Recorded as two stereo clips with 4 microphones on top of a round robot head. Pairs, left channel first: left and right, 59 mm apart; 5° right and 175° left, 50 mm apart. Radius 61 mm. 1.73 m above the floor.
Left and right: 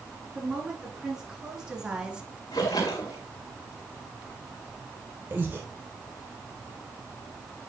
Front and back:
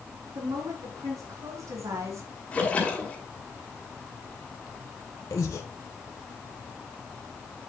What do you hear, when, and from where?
0.3 s a woman speaking: 170° right, 4.5 m; by 2.3 s 165° right, 1.7 m
2.5 s a splash: 55° left, 2 m
5.3 s breathing: 30° right, 1.4 m